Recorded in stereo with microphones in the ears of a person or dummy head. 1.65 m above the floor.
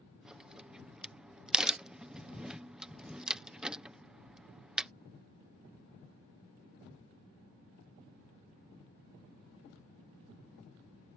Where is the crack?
5° right (ahead or behind).